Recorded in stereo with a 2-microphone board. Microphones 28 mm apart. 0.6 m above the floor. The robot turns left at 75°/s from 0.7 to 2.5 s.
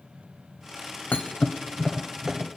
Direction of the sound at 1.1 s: 70° left (ahead or behind).